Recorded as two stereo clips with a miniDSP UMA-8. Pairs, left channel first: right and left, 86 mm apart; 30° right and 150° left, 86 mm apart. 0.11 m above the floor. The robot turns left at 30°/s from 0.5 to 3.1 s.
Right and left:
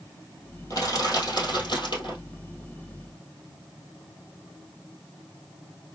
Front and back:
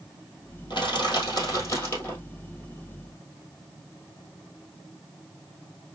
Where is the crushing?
50° right, 2.5 m; by 2.2 s 95° right, 2.5 m.